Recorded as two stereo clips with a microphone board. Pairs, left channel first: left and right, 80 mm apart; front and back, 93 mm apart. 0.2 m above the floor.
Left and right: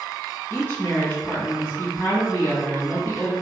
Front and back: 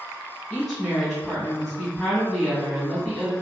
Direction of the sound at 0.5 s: 85° left.